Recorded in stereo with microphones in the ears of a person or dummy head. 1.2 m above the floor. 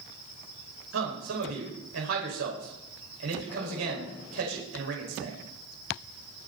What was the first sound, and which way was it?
A man speaking, 80° right.